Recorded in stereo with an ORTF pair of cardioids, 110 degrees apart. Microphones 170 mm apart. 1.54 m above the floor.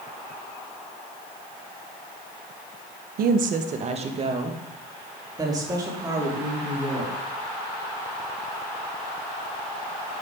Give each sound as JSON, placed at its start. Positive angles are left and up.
{"t": 3.2, "sound": "a woman speaking", "azimuth_deg": -65, "distance_m": 1.1}